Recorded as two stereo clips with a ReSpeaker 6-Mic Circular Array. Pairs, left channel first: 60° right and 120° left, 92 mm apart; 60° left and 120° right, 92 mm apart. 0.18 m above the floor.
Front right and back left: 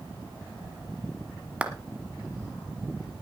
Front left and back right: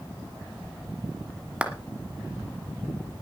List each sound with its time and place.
1.6 s a clap: straight behind, 1.3 m